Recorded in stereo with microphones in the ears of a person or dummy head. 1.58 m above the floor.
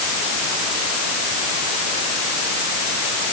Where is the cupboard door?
No cupboard door in this recording.